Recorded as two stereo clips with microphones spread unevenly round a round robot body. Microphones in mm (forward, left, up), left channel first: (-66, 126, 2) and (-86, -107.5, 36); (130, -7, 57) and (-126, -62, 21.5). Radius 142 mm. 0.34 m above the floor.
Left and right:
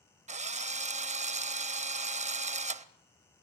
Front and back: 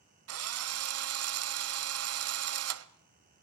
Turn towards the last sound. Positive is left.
turn(degrees=-160)